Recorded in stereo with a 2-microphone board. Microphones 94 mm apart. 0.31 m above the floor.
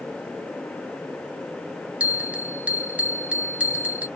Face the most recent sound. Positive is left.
turn(degrees=-15)  # may be behind; listen again after turning